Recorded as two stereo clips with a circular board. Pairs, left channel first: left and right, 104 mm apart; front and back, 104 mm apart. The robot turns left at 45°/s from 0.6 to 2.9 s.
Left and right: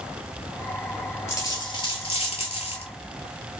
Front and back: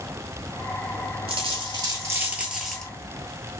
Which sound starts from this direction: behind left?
A dropped coin, at 1.3 s.